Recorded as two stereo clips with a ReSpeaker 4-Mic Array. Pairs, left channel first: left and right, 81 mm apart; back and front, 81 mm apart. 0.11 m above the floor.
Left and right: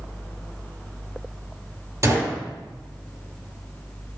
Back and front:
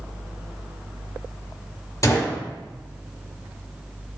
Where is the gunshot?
135° right, 3.5 m.